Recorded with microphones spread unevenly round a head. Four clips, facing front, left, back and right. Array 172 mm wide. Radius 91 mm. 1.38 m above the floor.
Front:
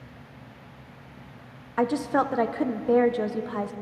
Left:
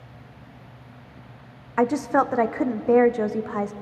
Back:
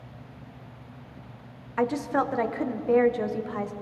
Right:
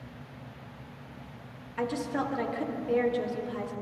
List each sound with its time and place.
1.8 s a woman speaking: 55° left, 0.7 m